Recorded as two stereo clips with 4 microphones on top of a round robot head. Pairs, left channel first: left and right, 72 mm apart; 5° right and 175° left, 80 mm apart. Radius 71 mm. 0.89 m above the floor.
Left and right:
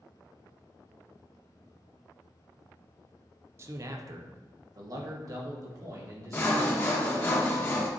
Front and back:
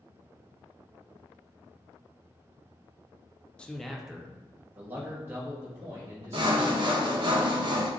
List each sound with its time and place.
3.6 s a man speaking: 75° right, 0.5 m; by 6.9 s 125° right, 2 m
6.3 s sawing: 150° left, 0.8 m